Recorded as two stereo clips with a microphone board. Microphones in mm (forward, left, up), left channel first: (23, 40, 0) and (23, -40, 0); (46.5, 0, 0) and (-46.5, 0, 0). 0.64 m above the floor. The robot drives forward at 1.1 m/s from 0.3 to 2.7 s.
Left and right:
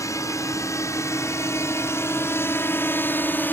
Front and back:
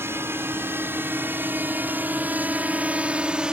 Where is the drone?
125° left; by 3.5 s 110° left.